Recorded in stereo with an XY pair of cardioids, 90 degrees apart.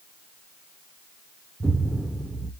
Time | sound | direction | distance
1.6 | an explosion | 20° right | 0.8 m